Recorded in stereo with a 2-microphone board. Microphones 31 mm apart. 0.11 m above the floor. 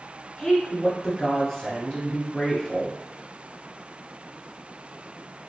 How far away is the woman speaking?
About 1.1 m.